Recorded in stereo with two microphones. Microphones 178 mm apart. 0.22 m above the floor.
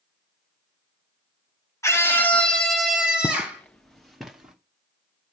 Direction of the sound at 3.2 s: 25° left (ahead or behind).